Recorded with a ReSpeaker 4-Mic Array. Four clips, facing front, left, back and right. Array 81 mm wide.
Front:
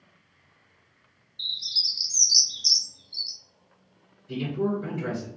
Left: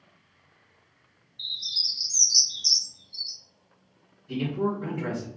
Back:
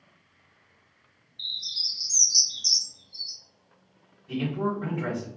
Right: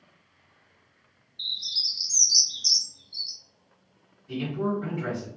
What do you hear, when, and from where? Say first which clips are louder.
1.4 s a bird: right 1 dB, front 2 dB; 65° right, 0.6 m
4.3 s a man speaking: left 1 dB, front 1 dB; 160° right, 1.1 m